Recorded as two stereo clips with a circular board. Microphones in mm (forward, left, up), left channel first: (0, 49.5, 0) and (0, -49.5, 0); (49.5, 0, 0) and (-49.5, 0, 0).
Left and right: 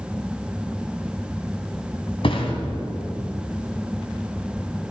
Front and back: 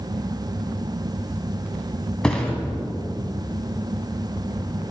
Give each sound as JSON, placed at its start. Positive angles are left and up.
{"t": 2.2, "sound": "a thud", "azimuth_deg": 80, "distance_m": 1.8}